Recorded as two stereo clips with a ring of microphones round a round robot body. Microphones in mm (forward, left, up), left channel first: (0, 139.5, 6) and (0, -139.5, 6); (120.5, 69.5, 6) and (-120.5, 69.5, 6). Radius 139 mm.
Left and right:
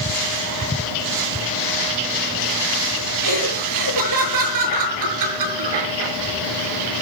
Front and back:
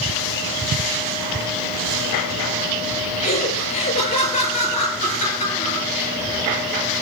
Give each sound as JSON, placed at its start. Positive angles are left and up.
{"t": 3.2, "sound": "laughter", "azimuth_deg": -70, "distance_m": 7.5}